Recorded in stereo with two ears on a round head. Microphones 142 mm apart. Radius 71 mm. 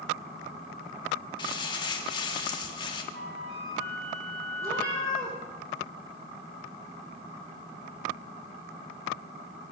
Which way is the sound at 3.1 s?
80° right.